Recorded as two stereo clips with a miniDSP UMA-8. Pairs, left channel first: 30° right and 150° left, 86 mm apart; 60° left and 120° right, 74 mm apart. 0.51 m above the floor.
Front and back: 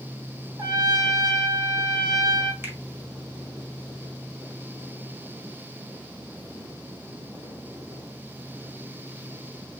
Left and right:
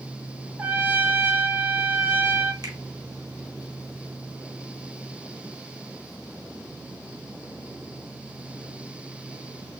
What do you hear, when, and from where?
0.6 s a trumpet: straight behind, 0.7 m
2.6 s a finger snap: 145° right, 1.3 m